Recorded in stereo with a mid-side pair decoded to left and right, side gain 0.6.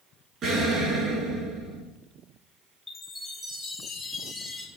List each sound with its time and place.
0.4 s an explosion: 45° right, 8.5 m
2.9 s a chime: 5° left, 4.5 m